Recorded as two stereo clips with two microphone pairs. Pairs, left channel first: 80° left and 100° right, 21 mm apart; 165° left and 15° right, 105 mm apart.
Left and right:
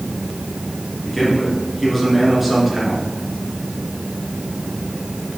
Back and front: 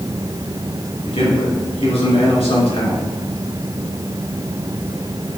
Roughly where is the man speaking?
Behind.